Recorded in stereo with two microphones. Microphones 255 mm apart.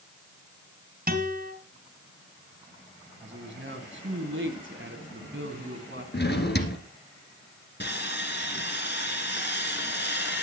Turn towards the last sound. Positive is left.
turn(degrees=45)  # may be behind; listen again after turning